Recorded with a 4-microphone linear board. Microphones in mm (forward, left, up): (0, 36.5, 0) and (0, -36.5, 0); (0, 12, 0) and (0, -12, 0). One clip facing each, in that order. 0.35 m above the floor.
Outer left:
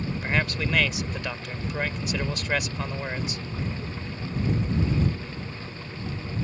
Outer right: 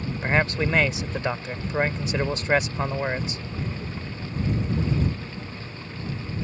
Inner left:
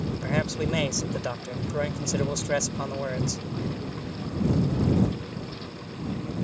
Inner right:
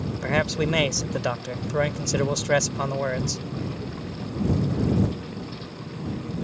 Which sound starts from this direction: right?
A man speaking, at 0.2 s.